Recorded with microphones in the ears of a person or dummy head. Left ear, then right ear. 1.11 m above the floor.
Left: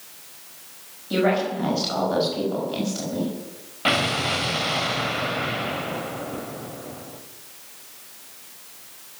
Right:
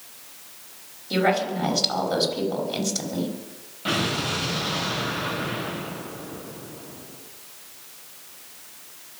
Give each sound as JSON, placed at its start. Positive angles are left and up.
{"t": 1.1, "sound": "a woman speaking", "side_deg": -25, "distance_m": 5.5}
{"t": 3.9, "sound": "an explosion", "side_deg": 40, "distance_m": 1.7}